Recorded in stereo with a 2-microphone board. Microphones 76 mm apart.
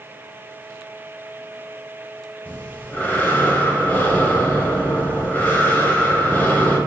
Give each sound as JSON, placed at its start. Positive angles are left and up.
{"t": 2.5, "sound": "breathing", "side_deg": 20, "distance_m": 1.2}